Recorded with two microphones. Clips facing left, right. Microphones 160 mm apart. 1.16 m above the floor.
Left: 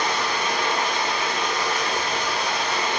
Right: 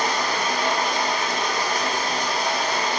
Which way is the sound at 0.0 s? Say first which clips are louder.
Right 1 dB; 40° right (ahead or behind).